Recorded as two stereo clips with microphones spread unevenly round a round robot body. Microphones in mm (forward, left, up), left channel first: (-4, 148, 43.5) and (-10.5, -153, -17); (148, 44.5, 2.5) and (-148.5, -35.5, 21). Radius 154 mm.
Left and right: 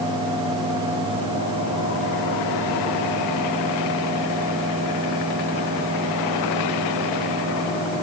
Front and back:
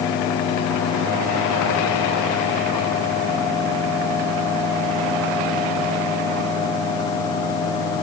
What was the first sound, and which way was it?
Only background noise.